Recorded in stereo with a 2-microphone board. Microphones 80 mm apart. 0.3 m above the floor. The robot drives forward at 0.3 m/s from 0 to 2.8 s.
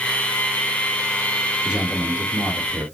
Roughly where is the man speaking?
Centre.